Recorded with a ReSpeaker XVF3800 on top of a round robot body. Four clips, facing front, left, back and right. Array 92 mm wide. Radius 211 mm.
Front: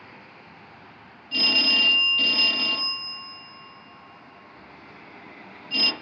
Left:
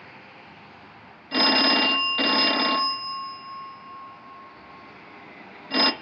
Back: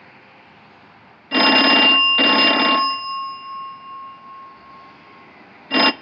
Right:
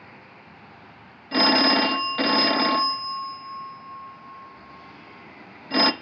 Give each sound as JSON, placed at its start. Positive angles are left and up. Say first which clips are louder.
{"t": 1.3, "sound": "a phone ringing", "louder": "right 2 dB, back 11 dB", "azimuth_deg": -170, "distance_m": 0.6}